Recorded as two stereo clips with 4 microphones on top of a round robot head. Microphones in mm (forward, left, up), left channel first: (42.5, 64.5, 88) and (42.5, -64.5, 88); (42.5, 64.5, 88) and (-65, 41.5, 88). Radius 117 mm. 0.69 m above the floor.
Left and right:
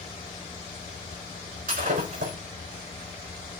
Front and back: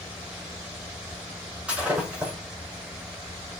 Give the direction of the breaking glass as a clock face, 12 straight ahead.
3 o'clock.